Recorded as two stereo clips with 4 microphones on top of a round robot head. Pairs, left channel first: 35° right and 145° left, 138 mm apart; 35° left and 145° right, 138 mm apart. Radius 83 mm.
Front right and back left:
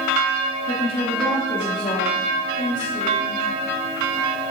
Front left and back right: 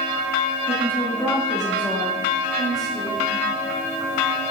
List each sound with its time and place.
0.7 s a woman speaking: 20° right, 1.3 m; by 3.4 s 95° right, 1.8 m